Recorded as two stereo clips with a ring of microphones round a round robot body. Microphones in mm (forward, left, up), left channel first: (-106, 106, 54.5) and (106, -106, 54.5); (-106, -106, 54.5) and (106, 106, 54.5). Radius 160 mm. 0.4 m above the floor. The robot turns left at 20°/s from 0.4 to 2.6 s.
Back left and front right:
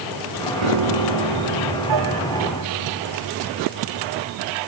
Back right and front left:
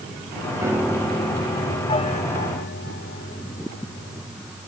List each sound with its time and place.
0.6 s a piano: 35° right; by 4.2 s 75° right